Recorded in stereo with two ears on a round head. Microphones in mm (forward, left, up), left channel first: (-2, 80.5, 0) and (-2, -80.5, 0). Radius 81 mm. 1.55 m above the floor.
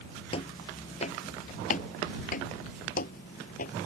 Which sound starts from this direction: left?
Footsteps, at 0.3 s.